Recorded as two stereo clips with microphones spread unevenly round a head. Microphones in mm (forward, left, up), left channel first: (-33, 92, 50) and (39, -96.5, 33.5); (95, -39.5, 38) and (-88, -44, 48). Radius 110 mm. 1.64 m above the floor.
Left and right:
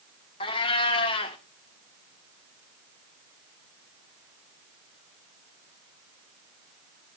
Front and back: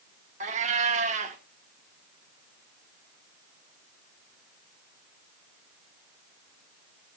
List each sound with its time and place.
0.4 s a cat meowing: 155° left, 1.4 m